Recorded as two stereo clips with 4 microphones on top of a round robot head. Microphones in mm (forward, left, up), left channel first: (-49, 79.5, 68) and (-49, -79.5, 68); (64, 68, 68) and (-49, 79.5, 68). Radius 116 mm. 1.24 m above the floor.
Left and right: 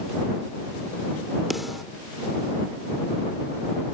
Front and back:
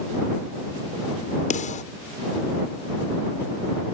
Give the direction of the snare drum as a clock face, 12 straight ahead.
12 o'clock.